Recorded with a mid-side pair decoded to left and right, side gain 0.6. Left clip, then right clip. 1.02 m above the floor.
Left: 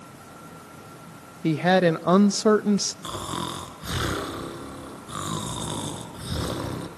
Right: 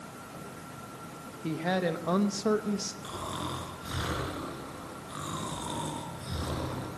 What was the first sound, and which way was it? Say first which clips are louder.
A woman speaking: left 10 dB; 45° left.